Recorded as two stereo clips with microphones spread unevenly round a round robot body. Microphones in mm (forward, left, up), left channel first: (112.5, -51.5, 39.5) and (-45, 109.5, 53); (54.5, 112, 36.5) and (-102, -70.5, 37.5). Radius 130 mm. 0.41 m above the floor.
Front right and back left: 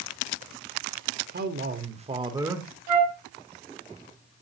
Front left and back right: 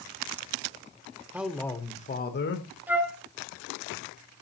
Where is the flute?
145° left, 1.9 m.